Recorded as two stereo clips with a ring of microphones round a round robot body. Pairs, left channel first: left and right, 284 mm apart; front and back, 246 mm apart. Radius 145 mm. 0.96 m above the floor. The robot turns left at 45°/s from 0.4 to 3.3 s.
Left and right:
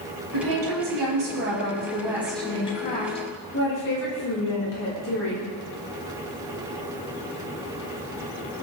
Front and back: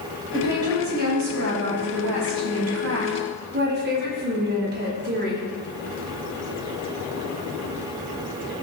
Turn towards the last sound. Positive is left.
turn(degrees=135)